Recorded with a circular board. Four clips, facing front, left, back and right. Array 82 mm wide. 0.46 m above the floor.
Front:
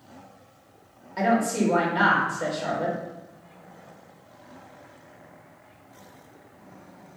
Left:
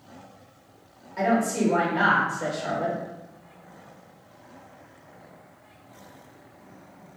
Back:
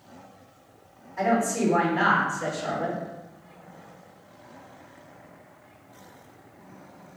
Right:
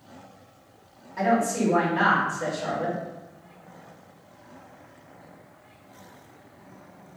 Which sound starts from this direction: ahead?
A woman speaking, at 1.2 s.